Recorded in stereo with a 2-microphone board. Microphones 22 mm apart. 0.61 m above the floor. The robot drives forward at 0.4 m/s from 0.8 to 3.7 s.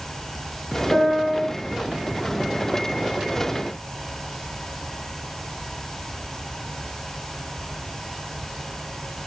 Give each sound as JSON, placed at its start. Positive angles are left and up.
{"t": 0.9, "sound": "a piano", "side_deg": 35, "distance_m": 2.0}